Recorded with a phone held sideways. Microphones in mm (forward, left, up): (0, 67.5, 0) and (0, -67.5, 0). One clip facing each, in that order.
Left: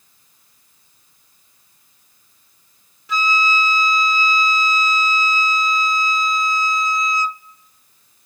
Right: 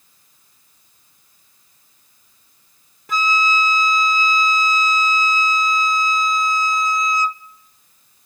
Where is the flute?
50° right (ahead or behind), 0.8 m.